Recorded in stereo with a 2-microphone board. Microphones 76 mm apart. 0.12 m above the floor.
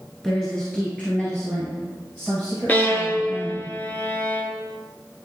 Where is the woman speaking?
10° left (ahead or behind), 1.6 m; by 3.7 s 40° left (ahead or behind), 3.5 m.